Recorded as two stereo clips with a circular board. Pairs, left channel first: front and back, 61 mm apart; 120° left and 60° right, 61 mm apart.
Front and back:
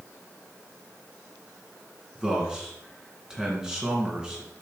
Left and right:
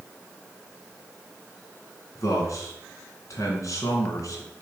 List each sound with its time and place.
2.1 s a man speaking: 105° left, 2.5 m